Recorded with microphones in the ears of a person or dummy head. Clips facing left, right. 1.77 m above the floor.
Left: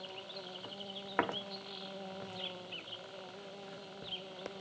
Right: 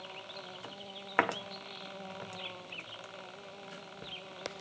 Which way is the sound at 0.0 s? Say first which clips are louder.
Even; 10° left (ahead or behind).